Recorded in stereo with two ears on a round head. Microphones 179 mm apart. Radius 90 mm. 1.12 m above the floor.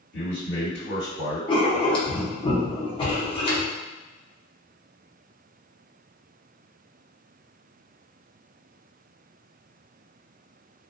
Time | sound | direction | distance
0.1 | a man speaking | 50° left (ahead or behind) | 1.7 m
1.5 | writing | 25° left (ahead or behind) | 0.7 m